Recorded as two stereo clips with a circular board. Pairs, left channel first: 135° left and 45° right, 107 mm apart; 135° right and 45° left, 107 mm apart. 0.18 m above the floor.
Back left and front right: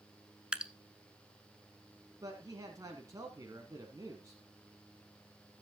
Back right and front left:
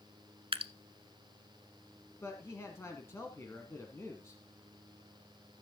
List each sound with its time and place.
0.5 s dripping: 35° left, 0.7 m
2.2 s a man speaking: 80° right, 1.4 m